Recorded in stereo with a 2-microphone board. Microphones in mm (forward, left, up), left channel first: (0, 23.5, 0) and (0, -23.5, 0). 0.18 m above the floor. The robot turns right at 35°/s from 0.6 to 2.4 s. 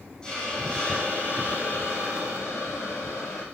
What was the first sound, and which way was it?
A hiss, 15° left.